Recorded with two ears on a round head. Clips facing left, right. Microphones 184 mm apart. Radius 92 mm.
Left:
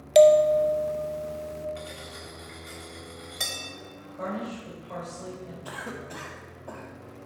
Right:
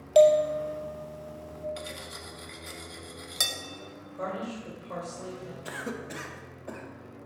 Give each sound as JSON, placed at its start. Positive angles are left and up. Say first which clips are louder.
{"t": 0.1, "sound": "a bell", "louder": "left 3 dB", "side_deg": 25, "distance_m": 0.6}
{"t": 1.8, "sound": "cutlery clinking", "louder": "left 1 dB", "side_deg": -55, "distance_m": 1.1}
{"t": 4.2, "sound": "a woman speaking", "louder": "left 1 dB", "side_deg": -35, "distance_m": 3.0}
{"t": 5.7, "sound": "a cough", "louder": "right 4 dB", "side_deg": -25, "distance_m": 0.9}